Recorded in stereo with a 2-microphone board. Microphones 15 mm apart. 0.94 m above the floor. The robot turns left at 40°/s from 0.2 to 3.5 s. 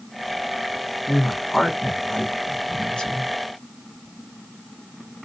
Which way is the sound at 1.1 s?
15° left (ahead or behind).